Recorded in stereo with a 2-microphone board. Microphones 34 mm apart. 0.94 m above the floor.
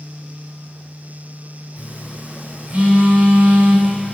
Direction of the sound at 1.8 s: 45° right (ahead or behind).